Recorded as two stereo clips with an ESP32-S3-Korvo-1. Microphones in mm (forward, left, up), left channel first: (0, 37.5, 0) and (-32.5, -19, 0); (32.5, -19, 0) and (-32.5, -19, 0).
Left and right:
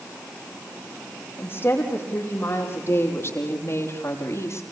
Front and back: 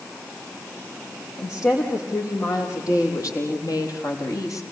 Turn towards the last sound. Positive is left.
turn(degrees=25)